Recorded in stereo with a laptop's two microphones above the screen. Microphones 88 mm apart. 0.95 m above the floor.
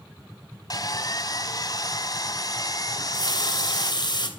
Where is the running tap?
55° left (ahead or behind), 3 m.